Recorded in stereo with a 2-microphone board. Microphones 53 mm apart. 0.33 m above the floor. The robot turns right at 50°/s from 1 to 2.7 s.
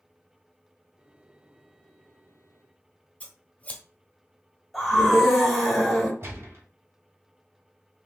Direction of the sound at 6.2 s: 50° right (ahead or behind).